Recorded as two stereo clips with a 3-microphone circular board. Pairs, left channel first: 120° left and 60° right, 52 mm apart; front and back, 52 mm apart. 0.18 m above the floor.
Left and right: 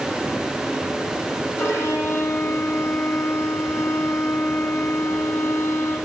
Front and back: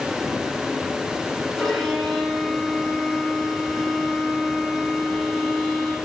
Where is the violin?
85° left, 5 m.